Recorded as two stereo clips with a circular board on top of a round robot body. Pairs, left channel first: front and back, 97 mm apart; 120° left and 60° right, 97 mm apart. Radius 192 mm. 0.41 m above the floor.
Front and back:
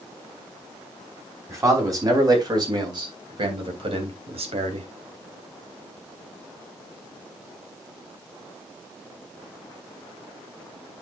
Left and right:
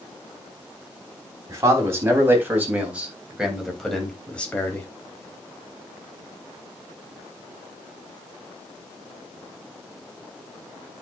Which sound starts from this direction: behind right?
A man speaking, at 1.5 s.